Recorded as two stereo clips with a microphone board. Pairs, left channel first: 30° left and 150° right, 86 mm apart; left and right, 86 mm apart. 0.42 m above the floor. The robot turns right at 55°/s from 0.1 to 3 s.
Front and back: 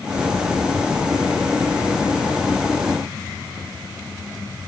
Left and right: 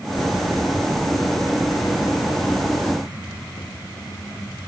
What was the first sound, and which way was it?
Only background noise.